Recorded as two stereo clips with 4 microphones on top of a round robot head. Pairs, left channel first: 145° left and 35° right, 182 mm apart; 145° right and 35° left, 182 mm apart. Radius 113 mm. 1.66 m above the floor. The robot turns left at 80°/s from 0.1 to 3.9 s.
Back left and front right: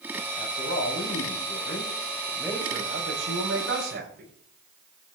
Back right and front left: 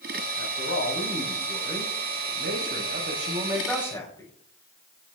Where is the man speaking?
150° right, 7.5 m; by 4.3 s 75° right, 7.5 m.